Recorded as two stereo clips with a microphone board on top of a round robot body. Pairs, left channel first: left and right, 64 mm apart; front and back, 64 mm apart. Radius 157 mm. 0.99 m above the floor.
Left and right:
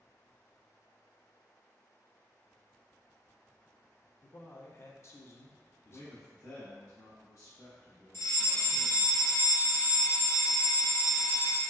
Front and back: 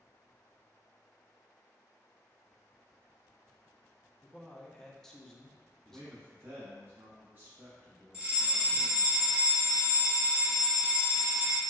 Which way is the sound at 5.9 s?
125° left.